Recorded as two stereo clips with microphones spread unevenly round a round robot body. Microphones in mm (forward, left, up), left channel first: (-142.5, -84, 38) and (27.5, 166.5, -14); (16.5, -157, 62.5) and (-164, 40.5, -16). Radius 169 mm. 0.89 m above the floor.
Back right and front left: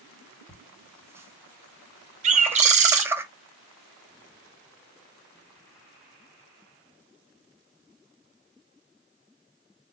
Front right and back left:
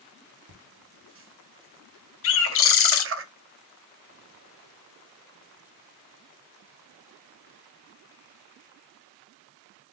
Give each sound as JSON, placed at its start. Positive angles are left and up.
{"t": 0.5, "sound": "laughter", "azimuth_deg": 130, "distance_m": 1.1}
{"t": 2.2, "sound": "a bird", "azimuth_deg": 5, "distance_m": 0.6}